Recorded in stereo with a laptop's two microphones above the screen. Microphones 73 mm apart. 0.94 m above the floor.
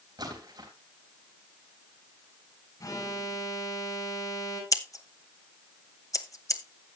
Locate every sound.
0.2 s a splash: 65° right (ahead or behind), 3.5 m
2.8 s an alarm: 55° left (ahead or behind), 5.5 m
4.7 s scissors: 45° left (ahead or behind), 1.0 m